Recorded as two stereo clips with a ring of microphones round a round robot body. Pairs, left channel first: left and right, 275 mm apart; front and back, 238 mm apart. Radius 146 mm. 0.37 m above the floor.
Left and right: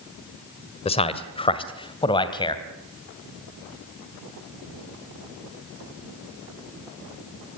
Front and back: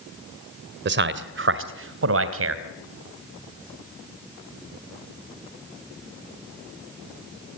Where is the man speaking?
155° left, 1.8 m; by 2.6 s 165° left, 3 m.